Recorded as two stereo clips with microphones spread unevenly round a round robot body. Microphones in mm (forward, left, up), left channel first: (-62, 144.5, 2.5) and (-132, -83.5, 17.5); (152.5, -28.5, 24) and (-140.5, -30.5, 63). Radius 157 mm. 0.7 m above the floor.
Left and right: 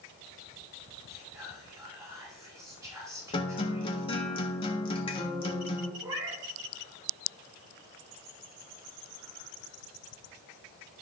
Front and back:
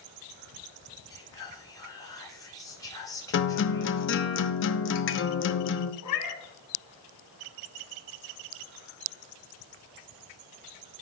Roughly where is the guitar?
Ahead.